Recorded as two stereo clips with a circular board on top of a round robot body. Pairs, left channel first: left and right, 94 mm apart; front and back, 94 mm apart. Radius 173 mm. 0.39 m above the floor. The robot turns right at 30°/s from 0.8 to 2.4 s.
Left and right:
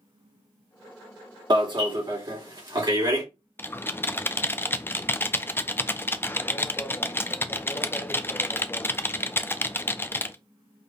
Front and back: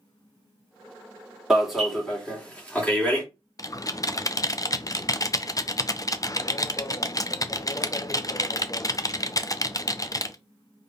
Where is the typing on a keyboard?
30° left, 0.6 m.